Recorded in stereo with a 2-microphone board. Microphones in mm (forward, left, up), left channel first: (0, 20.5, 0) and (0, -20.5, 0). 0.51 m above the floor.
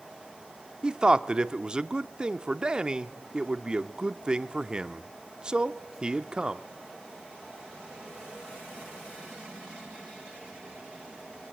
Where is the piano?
I don't hear a piano.